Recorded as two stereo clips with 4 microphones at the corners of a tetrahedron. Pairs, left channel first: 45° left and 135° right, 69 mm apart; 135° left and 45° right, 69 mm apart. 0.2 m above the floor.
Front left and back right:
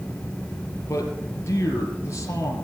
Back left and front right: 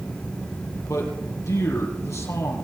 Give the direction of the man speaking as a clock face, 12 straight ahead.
9 o'clock.